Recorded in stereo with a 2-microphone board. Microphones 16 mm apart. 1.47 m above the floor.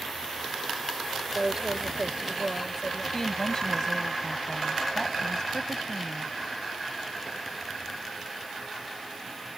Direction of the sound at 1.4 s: 35° right (ahead or behind).